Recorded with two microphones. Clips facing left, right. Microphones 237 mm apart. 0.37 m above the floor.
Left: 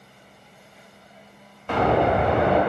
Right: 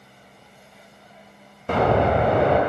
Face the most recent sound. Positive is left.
turn(degrees=-45)  # may be behind; listen again after turning